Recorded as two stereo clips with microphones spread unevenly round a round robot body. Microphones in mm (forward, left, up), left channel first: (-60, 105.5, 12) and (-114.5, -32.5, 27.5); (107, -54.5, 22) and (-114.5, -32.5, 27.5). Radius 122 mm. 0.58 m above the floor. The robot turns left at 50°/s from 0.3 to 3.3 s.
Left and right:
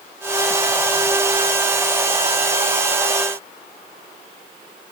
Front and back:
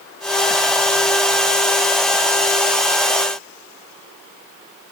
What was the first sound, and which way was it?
Only background noise.